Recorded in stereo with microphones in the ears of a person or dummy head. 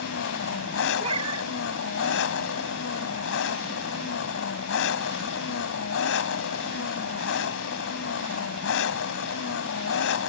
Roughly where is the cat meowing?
Right.